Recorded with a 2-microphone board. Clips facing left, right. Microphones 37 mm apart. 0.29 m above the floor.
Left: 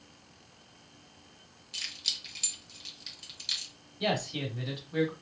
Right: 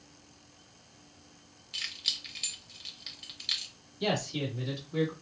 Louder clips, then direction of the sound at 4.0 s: Even; 30° left (ahead or behind).